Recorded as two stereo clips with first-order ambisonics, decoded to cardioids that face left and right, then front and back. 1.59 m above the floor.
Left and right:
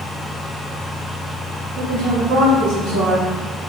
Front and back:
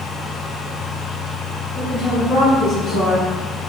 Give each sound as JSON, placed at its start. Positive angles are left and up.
{"t": 1.8, "sound": "a woman speaking", "azimuth_deg": -65, "distance_m": 1.4}